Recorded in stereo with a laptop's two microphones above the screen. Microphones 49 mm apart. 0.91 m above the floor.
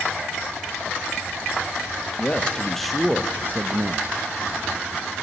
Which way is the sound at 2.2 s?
25° left (ahead or behind).